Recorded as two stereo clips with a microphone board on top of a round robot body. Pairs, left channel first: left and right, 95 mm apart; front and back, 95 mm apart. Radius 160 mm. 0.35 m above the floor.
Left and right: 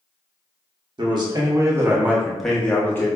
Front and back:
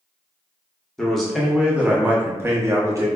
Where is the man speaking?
85° right, 1.0 m; by 3.1 s 140° left, 0.9 m.